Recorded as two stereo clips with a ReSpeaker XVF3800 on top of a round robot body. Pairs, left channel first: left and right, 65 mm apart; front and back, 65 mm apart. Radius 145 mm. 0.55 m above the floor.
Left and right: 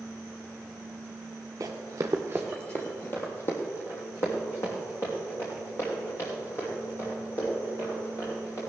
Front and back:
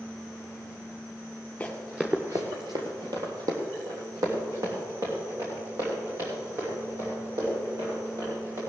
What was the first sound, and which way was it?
Running footsteps, 70° right.